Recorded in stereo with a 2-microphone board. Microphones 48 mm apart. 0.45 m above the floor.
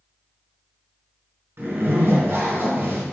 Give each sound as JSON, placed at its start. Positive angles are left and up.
{"t": 1.6, "sound": "a zipper", "side_deg": -55, "distance_m": 1.5}